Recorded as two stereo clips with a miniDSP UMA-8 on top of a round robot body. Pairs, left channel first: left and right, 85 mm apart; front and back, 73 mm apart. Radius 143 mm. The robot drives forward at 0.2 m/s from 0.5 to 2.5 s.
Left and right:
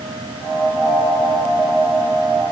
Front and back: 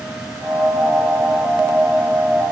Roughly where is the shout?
I don't hear a shout.